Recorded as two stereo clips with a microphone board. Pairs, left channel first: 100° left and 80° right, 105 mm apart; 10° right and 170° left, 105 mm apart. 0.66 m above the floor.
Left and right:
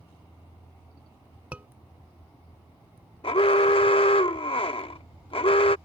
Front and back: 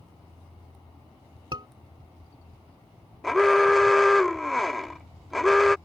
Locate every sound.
1.5 s a scream: 155° right
3.2 s an alarm: 80° left